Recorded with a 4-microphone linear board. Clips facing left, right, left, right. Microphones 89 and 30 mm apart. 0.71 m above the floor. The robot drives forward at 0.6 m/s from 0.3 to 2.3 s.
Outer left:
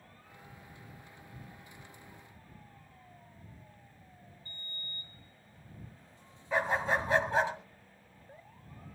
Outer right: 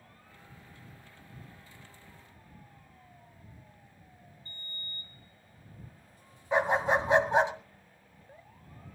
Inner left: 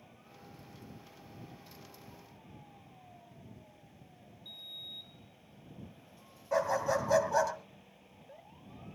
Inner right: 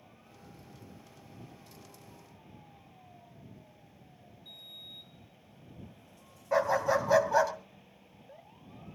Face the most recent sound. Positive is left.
turn(degrees=-20)  # may be behind; listen again after turning